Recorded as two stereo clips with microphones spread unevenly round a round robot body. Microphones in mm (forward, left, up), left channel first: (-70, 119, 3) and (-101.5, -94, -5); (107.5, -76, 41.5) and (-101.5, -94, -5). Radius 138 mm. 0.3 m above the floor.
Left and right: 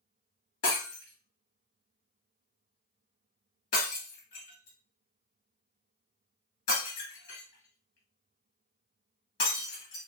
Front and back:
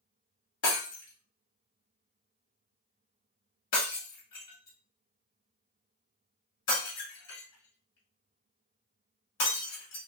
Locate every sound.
0.6 s breaking glass: 40° left, 1.7 m